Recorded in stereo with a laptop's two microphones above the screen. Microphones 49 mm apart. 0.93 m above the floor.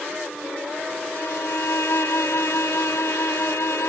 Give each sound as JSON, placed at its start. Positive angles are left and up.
{"t": 1.1, "sound": "a violin", "side_deg": 65}